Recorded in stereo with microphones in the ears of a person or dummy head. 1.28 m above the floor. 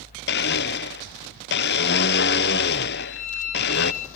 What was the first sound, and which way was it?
A blender, 50° left (ahead or behind).